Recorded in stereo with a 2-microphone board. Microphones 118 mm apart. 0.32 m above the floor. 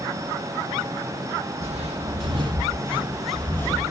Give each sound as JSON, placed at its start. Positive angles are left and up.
{"t": 1.6, "sound": "footsteps", "side_deg": -65, "distance_m": 0.9}